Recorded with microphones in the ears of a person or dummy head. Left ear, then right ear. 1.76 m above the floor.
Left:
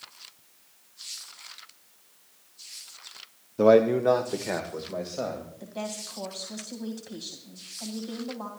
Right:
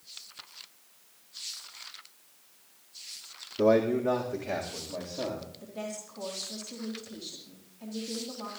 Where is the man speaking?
40° left (ahead or behind), 0.7 m; by 5.5 s 75° left (ahead or behind), 3 m.